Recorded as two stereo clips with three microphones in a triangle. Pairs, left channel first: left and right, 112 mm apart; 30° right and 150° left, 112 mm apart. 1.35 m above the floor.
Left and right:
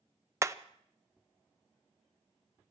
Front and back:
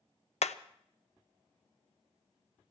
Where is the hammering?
25° right, 0.6 m.